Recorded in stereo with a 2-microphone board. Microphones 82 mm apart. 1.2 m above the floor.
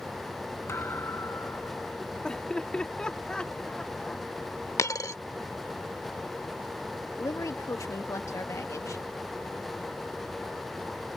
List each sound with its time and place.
0.7 s a thud: 30° left (ahead or behind)
2.2 s laughter: 10° left (ahead or behind)
4.8 s a dropped coin: 40° left (ahead or behind)
7.2 s a woman speaking: 40° left (ahead or behind)